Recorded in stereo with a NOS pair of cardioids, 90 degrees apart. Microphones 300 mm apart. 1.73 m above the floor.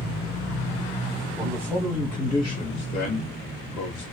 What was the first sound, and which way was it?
A man speaking, 10° right.